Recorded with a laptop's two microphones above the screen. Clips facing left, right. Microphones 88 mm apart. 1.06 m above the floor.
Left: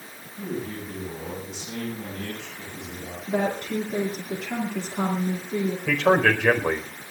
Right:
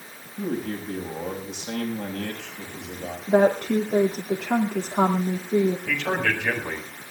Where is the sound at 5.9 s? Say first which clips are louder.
Left 6 dB; 80° left, 4 m.